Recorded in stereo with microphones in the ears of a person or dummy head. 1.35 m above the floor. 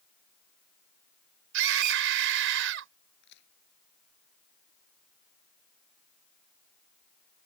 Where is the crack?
60° left (ahead or behind).